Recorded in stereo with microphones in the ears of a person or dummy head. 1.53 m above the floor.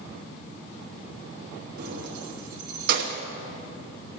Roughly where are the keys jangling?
Right.